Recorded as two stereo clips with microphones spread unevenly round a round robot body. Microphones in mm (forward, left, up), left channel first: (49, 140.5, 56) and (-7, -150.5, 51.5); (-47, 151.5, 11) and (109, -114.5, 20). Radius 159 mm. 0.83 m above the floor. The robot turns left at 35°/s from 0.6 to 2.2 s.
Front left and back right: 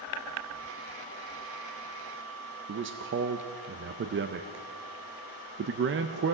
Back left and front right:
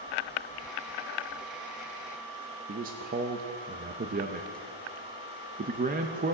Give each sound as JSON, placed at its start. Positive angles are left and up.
{"t": 2.7, "sound": "a man speaking", "azimuth_deg": -110, "distance_m": 0.5}